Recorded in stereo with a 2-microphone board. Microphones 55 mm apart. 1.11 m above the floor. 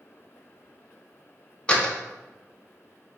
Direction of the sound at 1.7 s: 20° left (ahead or behind).